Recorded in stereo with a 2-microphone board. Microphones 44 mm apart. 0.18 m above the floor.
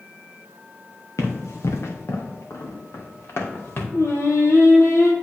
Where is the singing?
75° left (ahead or behind), 1.4 m.